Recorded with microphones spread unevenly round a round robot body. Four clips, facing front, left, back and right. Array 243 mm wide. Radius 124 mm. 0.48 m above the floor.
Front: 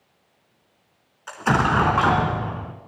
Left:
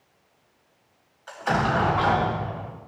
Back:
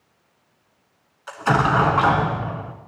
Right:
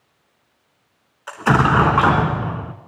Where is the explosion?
85° right, 1.1 m.